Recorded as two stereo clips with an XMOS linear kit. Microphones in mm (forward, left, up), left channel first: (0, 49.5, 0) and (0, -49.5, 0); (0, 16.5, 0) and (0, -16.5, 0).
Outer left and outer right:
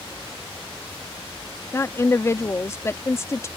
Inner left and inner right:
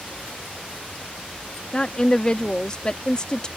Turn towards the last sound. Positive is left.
turn(degrees=25)  # may be behind; listen again after turning